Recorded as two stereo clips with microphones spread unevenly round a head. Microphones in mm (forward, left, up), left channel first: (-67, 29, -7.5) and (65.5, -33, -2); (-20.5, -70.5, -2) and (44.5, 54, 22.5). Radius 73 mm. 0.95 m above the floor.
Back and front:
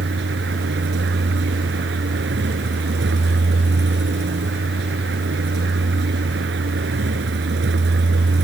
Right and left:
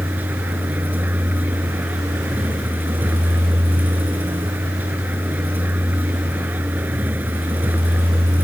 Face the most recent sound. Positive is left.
turn(degrees=-15)